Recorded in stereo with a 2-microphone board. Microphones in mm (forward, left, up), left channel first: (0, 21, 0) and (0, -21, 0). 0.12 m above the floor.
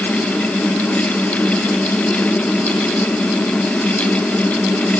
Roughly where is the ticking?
No ticking in this recording.